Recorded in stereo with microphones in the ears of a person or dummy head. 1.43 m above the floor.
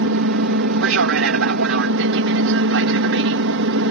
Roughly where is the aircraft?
Right.